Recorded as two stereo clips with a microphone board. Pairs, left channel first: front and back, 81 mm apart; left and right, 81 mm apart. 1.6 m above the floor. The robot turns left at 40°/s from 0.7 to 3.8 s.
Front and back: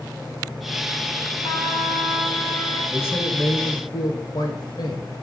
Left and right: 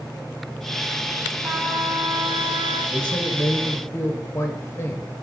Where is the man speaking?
65° left, 1.2 m; by 5.0 s 30° left, 1.2 m.